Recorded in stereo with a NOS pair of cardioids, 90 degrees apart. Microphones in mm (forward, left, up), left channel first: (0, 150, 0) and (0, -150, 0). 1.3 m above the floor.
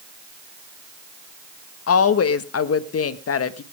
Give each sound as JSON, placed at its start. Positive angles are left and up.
{"t": 1.9, "sound": "a woman speaking", "azimuth_deg": 50, "distance_m": 1.7}